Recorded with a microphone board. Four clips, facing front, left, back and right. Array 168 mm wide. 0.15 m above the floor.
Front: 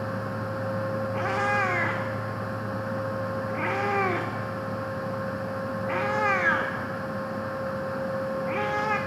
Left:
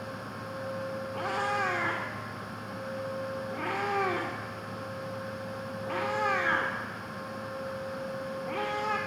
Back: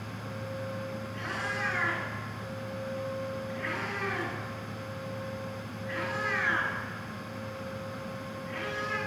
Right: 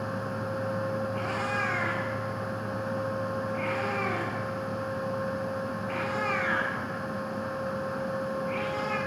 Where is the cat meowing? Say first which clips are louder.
Even, front 10 dB; 20° left, 5.5 m.